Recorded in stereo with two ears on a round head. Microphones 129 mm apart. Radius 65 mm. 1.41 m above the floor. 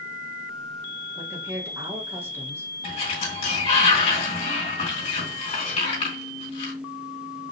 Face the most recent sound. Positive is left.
turn(degrees=45)  # may be behind; listen again after turning